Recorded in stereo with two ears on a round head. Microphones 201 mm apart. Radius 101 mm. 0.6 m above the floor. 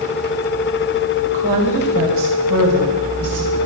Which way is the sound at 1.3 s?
55° right (ahead or behind).